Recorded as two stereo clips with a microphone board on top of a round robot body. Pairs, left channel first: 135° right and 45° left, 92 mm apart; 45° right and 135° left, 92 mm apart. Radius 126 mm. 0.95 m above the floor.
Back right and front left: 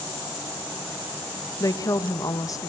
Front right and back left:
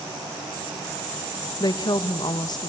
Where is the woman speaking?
85° right, 1.3 m.